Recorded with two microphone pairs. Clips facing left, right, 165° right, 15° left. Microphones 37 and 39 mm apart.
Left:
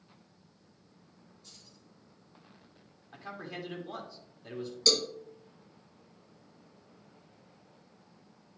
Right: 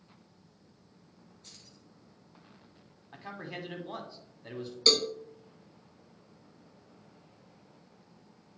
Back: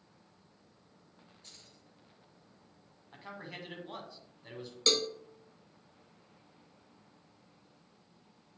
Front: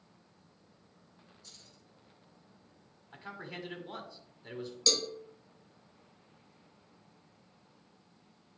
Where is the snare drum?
I don't hear a snare drum.